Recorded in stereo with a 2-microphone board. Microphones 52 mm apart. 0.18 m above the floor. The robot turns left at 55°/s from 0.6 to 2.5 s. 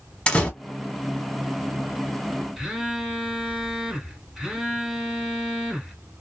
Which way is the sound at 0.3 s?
20° left (ahead or behind).